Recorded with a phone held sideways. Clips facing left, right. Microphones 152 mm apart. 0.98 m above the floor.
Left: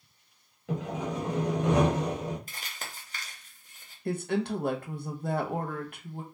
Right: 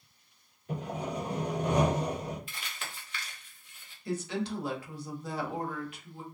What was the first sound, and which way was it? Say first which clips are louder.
Sawing: left 3 dB; 80° left.